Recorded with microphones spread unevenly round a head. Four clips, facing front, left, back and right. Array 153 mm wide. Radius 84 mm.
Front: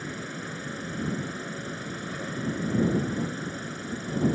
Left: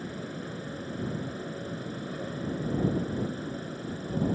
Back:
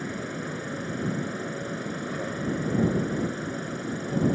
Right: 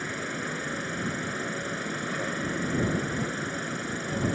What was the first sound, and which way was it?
An insect, 155° right.